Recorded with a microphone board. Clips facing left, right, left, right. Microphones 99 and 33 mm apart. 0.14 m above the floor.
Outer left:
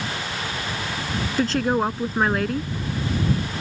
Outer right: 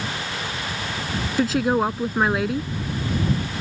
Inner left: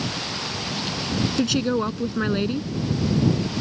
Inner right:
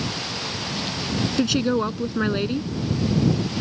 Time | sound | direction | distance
1.4 | a woman speaking | 5° right (ahead or behind) | ?